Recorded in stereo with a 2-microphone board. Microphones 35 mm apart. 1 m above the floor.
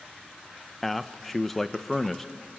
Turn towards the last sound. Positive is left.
turn(degrees=5)  # may be behind; listen again after turning